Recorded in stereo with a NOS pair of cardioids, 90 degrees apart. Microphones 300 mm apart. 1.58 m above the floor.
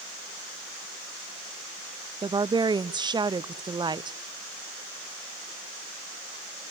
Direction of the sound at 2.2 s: 15° right.